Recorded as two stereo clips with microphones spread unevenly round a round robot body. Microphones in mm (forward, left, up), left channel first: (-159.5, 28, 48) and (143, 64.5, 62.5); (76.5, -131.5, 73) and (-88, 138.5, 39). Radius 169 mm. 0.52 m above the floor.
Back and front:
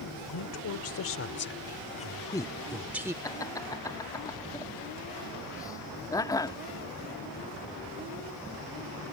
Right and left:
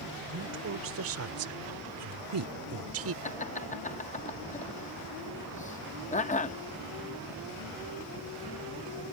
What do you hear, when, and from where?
0.3 s a woman speaking: 170° left; by 3.1 s 90° left
3.2 s laughter: 110° right